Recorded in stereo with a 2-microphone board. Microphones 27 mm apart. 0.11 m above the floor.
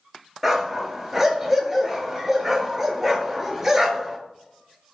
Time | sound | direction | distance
0.4 | a dog barking | 10° right (ahead or behind) | 0.6 m